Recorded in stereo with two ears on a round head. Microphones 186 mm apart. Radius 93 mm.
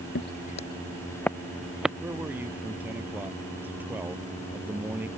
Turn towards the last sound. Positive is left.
turn(degrees=-10)  # may be behind; listen again after turning